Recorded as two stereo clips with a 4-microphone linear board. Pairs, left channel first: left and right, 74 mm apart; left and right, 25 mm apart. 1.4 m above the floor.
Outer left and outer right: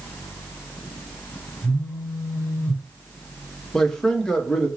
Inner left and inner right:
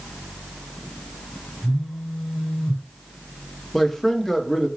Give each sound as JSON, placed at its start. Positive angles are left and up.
{"t": 1.6, "sound": "a phone buzzing", "side_deg": -5, "distance_m": 1.4}
{"t": 3.7, "sound": "a man speaking", "side_deg": 10, "distance_m": 0.9}